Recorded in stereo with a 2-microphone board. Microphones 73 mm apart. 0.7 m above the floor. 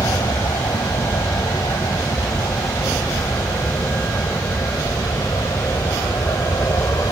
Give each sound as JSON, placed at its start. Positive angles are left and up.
{"t": 0.0, "sound": "an aircraft", "side_deg": 60}